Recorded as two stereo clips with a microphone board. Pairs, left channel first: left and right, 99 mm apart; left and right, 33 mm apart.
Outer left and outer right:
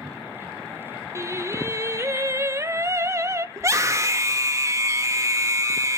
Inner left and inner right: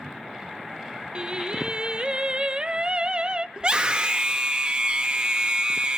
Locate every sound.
1.1 s singing: 25° right (ahead or behind), 0.8 m
3.6 s a scream: 30° right (ahead or behind), 1.9 m